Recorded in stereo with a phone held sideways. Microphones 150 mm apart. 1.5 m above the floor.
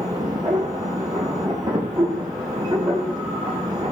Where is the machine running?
25° right (ahead or behind), 7 m.